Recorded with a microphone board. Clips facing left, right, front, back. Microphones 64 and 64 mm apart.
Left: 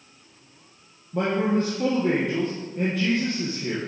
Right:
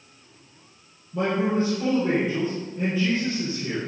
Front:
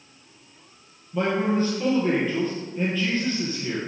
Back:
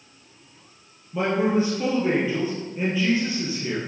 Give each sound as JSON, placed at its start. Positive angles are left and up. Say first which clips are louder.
{"t": 1.1, "sound": "a man speaking", "louder": "even, back 1 dB", "azimuth_deg": 105, "distance_m": 4.0}